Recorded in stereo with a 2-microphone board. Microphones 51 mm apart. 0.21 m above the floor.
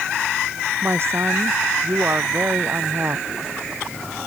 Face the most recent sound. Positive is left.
turn(degrees=-55)  # may be behind; listen again after turning